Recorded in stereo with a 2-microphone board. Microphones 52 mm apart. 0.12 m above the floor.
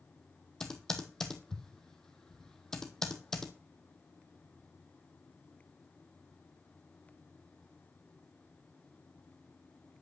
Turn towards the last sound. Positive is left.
turn(degrees=10)  # may be behind; listen again after turning